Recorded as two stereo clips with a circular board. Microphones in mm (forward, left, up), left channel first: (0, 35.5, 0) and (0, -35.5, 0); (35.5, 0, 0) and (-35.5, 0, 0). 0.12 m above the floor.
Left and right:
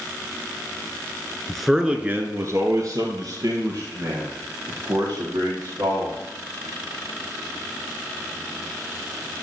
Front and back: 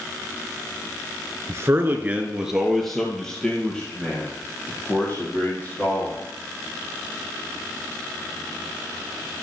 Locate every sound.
1.5 s a man speaking: 170° left, 1.4 m; by 6.2 s 65° right, 6 m